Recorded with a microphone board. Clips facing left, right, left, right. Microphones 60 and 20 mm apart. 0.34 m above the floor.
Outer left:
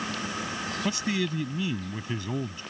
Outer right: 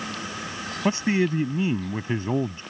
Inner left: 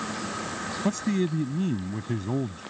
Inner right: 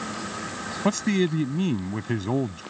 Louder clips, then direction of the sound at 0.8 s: Outer right 8 dB, inner right 4 dB; 35° right (ahead or behind).